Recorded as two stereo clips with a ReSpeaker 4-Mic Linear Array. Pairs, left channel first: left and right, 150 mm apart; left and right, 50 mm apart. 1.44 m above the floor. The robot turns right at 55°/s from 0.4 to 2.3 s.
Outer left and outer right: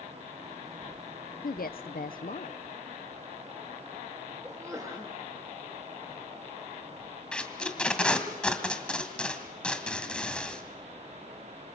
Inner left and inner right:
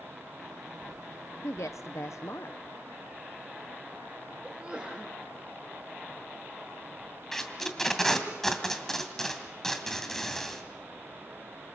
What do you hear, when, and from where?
1.4 s a woman speaking: 70° left, 0.6 m; by 2.6 s 115° left, 0.6 m
4.4 s a sneeze: 20° right (ahead or behind), 3 m
7.3 s tape being pulled: 5° left (ahead or behind), 2.5 m